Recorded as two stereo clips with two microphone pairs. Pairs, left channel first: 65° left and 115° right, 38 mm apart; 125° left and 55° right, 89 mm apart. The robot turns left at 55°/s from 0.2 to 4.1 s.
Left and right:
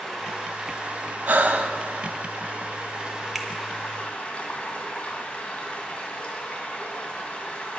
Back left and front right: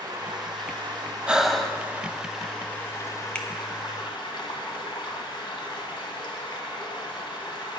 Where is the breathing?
135° right, 0.6 m; by 1.8 s 160° right, 0.6 m.